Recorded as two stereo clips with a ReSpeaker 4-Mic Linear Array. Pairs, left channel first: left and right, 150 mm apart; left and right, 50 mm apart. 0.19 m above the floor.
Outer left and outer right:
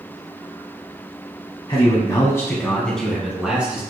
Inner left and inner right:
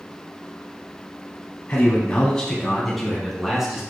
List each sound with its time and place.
1.7 s a man speaking: 35° left (ahead or behind), 1.1 m; by 3.8 s 10° right (ahead or behind), 1.6 m